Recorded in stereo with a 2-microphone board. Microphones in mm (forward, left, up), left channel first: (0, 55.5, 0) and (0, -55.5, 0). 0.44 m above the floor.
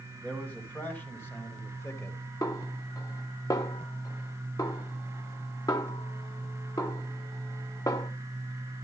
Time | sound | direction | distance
0.2 | a man speaking | 15° left (ahead or behind) | 3.5 m
2.4 | a snare drum | 35° left (ahead or behind) | 1.4 m